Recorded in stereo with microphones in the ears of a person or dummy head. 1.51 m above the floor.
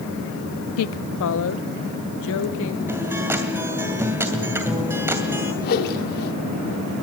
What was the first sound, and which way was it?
A woman speaking, 75° left (ahead or behind).